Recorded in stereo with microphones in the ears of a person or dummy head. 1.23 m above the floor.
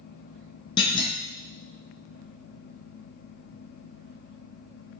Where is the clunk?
35° left (ahead or behind), 0.6 m.